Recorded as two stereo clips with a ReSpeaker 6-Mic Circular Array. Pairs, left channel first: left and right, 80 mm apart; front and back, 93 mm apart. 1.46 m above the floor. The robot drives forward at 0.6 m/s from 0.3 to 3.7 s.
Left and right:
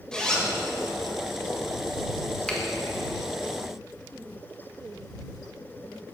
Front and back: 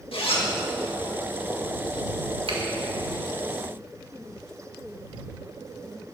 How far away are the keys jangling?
I don't hear keys jangling.